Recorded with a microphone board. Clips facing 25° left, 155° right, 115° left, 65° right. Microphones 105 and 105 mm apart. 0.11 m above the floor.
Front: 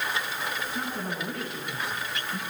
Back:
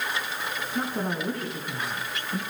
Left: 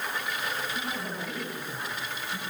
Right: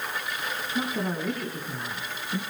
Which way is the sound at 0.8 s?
110° right.